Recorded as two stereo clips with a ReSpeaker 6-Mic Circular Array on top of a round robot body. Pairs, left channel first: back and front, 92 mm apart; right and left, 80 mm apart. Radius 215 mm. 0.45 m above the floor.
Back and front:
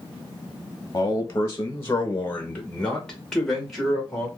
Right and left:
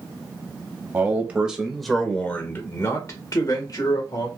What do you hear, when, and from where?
0.9 s a man speaking: 140° left, 1.3 m; by 4.3 s 85° right, 1.9 m